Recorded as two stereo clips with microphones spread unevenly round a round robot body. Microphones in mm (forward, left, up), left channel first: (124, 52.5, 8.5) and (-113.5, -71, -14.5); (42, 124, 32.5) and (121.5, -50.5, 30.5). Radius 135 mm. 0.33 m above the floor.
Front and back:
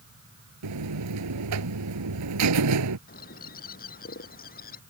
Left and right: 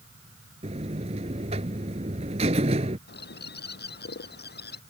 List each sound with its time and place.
0.6 s a buzzer: 130° right
3.1 s a bird: 85° left